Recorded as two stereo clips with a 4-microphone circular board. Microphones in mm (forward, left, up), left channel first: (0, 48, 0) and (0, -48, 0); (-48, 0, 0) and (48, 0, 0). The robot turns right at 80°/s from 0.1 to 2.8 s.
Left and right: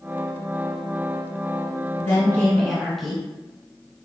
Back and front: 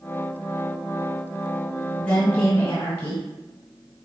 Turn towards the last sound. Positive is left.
turn(degrees=180)